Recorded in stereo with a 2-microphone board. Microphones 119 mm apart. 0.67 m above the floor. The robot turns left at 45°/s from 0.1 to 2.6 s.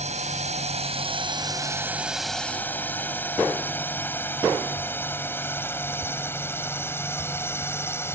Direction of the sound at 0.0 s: 70° right (ahead or behind).